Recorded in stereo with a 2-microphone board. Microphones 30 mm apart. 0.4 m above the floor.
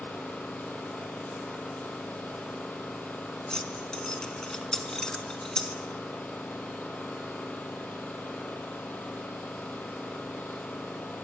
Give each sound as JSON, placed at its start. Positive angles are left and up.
{"t": 0.0, "sound": "an engine running", "side_deg": 85, "distance_m": 4.0}
{"t": 3.5, "sound": "keys jangling", "side_deg": 20, "distance_m": 3.0}